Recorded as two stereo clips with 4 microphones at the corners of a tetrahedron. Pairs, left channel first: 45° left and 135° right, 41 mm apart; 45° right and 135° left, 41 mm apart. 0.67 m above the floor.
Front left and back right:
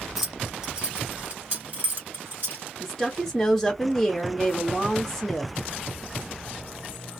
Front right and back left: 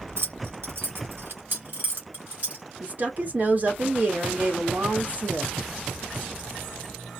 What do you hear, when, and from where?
0.2 s keys jangling: 135° left, 1.2 m; by 2.6 s 175° right, 2.5 m
2.8 s a woman speaking: 125° left, 1.2 m